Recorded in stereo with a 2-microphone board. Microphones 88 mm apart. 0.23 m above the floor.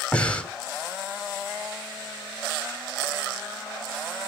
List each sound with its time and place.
0.1 s breathing: 15° left (ahead or behind), 1.3 m